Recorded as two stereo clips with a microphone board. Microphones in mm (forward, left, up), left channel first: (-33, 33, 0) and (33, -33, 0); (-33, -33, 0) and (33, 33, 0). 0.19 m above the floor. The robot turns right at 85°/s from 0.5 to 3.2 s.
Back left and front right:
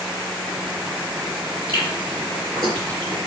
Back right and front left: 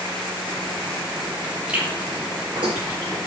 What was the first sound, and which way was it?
Chewing, 35° right.